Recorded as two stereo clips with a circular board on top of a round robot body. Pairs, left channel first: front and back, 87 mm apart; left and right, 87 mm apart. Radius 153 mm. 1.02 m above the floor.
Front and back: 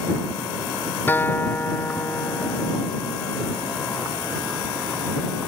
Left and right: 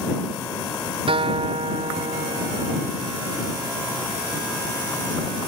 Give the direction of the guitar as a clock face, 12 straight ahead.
2 o'clock.